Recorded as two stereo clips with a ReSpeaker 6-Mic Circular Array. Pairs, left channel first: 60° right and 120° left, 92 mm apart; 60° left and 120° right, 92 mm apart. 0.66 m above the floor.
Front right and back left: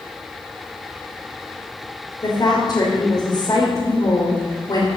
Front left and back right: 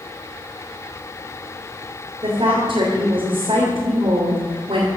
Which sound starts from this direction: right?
A woman speaking, at 2.2 s.